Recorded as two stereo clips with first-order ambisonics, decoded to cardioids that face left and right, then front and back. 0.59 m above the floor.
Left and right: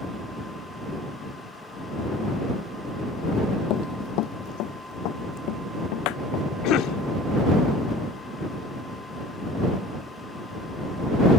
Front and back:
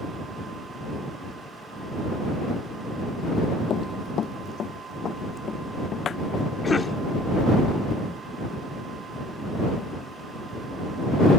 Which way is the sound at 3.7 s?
55° left.